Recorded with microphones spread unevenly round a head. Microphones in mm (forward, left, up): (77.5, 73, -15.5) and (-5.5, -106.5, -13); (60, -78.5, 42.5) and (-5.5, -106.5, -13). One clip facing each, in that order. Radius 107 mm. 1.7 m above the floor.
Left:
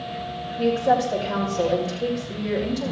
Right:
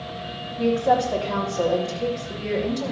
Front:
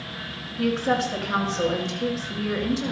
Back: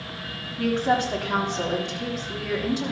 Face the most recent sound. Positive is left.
turn(degrees=155)